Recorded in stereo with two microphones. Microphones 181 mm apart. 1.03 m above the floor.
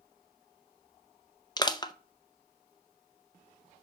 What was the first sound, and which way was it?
Crushing, 25° left (ahead or behind).